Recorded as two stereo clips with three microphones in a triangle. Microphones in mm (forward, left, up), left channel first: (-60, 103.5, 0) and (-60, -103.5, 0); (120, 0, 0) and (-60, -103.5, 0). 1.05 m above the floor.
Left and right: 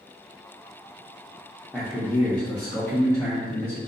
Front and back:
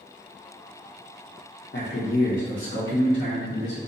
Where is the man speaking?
Straight ahead, 0.6 m; by 3.8 s 15° left, 1.6 m.